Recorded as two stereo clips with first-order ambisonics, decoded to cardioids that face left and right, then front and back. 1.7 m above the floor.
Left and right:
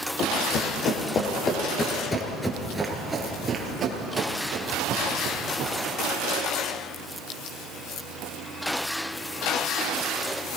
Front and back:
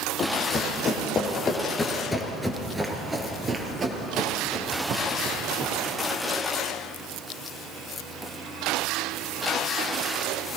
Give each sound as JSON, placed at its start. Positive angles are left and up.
{"t": 0.2, "sound": "running footsteps", "azimuth_deg": 50, "distance_m": 2.5}